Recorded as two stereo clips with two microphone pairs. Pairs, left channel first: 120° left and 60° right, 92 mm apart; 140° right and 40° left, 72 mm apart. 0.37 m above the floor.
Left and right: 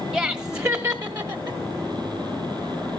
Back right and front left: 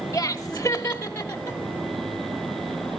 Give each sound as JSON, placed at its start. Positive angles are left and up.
{"t": 0.1, "sound": "laughter", "azimuth_deg": -125, "distance_m": 1.0}